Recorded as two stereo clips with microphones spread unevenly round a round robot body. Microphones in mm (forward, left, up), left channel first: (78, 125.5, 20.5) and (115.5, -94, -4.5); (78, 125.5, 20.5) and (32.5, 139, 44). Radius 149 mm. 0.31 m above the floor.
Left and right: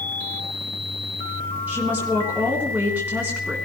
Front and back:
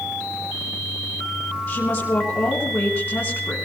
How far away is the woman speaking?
About 3.5 m.